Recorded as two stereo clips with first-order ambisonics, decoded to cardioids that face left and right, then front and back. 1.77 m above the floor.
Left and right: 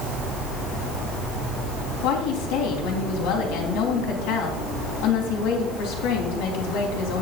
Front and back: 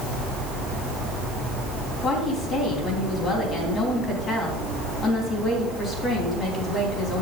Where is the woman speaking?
65° left, 3.5 m.